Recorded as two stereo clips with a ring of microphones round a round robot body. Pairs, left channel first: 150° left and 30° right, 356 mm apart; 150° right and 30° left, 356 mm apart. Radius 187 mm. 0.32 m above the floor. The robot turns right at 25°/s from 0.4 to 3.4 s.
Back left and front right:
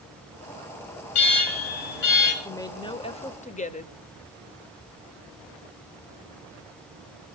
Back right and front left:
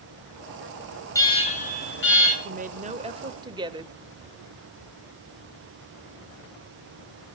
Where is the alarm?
130° left, 6.5 m; by 2.4 s 160° left, 6.5 m.